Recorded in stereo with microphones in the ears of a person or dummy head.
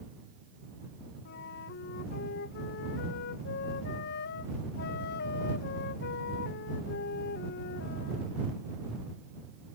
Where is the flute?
55° left (ahead or behind).